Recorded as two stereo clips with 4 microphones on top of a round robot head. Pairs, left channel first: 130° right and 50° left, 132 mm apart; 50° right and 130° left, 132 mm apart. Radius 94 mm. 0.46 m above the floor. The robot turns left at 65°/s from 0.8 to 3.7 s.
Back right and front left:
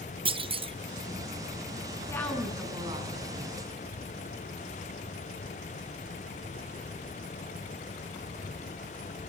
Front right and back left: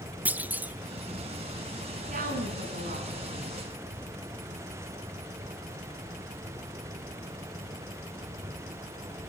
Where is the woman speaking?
160° left, 5.5 m; by 3.6 s 60° left, 5.5 m.